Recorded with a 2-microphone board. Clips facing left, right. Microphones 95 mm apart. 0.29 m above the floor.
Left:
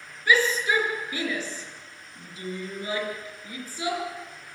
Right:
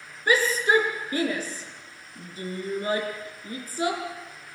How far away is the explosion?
No explosion in this recording.